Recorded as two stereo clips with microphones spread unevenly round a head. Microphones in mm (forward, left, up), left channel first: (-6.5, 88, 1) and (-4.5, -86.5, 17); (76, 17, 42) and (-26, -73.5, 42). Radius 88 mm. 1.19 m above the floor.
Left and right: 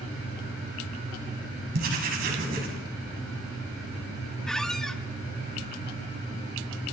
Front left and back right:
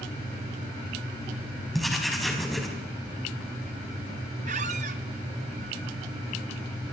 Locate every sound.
1.7 s writing: 50° right, 6 m
4.5 s a squeak: straight behind, 0.6 m